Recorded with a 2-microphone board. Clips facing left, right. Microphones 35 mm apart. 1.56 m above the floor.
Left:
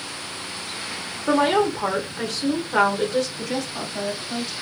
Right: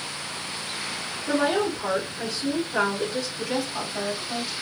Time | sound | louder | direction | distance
1.3 | a woman speaking | left 4 dB | 80° left | 0.9 m
3.4 | a woman speaking | even | 10° right (ahead or behind) | 1.6 m